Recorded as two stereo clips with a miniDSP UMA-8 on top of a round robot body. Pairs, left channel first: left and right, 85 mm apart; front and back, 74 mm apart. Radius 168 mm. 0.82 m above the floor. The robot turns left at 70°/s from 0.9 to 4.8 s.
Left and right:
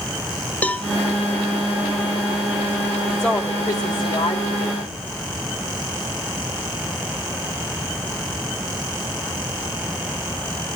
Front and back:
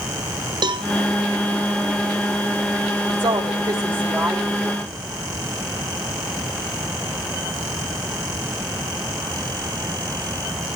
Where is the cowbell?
165° left, 0.9 m.